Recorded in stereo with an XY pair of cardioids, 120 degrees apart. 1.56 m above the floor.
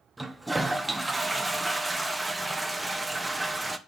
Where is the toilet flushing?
15° right, 1.0 m.